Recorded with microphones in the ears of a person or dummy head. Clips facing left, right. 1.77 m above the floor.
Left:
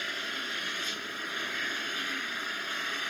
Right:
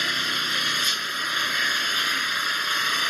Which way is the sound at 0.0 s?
80° right.